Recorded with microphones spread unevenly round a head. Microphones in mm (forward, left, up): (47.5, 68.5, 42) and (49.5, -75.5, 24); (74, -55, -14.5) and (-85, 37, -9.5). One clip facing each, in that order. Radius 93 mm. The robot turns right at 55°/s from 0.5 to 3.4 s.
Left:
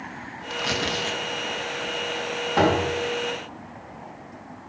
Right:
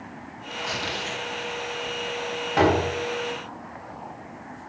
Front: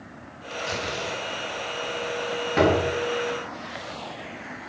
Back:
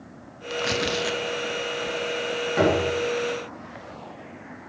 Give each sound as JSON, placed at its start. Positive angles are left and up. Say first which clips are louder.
{"t": 0.5, "sound": "tearing paper", "louder": "left 4 dB, back 5 dB", "azimuth_deg": 120, "distance_m": 1.0}
{"t": 2.6, "sound": "a door slam", "louder": "even, front 1 dB", "azimuth_deg": 0, "distance_m": 5.0}